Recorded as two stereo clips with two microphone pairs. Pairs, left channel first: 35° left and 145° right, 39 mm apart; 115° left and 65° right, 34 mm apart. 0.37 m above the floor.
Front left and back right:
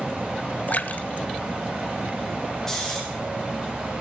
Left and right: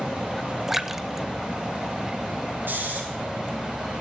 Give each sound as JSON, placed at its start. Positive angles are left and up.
{"t": 0.7, "sound": "a splash", "azimuth_deg": 15, "distance_m": 0.8}
{"t": 2.7, "sound": "snoring", "azimuth_deg": -40, "distance_m": 7.0}